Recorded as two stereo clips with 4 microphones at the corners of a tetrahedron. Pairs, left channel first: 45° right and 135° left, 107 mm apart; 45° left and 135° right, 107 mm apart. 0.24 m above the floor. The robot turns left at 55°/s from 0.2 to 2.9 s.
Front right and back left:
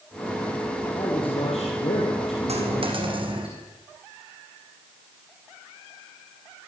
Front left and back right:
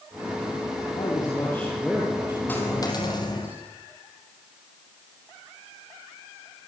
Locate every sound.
0.9 s a man speaking: 5° left, 6.5 m; by 3.5 s 100° right, 6.5 m
2.5 s a dropped coin: 120° left, 5.5 m; by 3.5 s 95° left, 5.5 m